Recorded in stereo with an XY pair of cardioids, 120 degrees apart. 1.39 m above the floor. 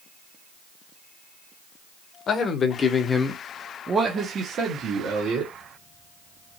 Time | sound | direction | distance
2.3 | a man speaking | 50° left | 1.0 m